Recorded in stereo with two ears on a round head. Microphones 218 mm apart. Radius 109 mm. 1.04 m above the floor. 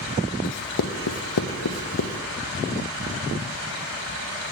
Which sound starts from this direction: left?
Writing, at 0.4 s.